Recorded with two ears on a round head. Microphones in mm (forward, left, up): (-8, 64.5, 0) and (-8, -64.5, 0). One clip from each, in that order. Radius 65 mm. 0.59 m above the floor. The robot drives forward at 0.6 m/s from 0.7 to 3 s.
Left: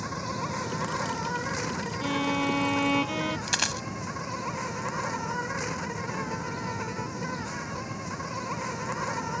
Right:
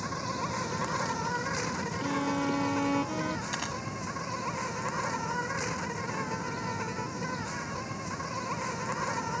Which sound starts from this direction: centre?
An insect, at 0.0 s.